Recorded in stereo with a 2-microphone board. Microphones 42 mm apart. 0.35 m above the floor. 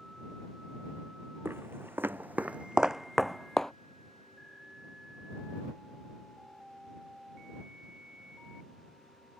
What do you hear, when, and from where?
1.4 s footsteps: 75° right (ahead or behind); by 3.7 s 10° left (ahead or behind)